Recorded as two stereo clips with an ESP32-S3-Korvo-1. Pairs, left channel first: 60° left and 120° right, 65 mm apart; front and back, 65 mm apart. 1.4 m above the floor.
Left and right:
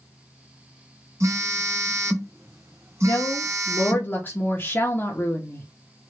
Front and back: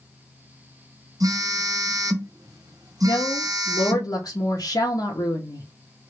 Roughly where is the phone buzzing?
Behind.